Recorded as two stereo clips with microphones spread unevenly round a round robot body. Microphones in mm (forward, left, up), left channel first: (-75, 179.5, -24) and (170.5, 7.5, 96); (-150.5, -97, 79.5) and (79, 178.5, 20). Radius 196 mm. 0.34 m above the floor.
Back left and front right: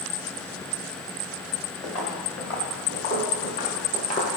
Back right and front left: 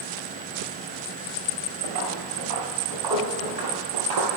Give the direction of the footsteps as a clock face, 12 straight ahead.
9 o'clock.